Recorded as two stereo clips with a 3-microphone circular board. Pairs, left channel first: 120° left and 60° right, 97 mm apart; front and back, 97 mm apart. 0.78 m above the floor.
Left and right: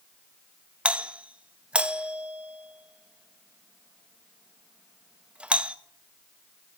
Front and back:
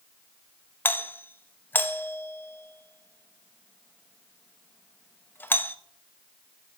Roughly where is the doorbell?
Ahead.